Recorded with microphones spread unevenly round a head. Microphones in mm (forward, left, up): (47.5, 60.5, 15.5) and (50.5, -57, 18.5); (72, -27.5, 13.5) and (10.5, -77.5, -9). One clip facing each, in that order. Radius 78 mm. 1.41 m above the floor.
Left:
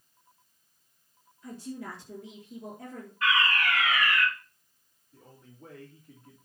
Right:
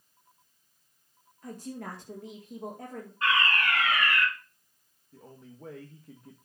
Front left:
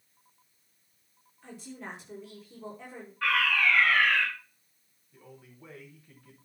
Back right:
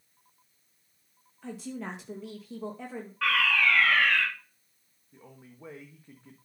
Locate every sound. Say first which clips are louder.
1.4 s a woman speaking: even, back right 5 dB; 150° right, 1.9 m
3.2 s a fire alarm: even, even; 160° right, 5 m
5.1 s a man speaking: right 5 dB, back right 1 dB; 70° right, 1.6 m